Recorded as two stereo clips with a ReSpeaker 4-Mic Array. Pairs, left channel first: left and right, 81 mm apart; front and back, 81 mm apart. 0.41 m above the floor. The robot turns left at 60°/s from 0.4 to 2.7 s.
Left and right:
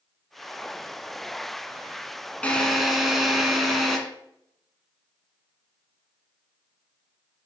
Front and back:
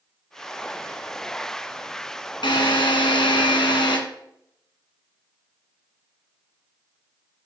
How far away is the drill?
About 1.9 m.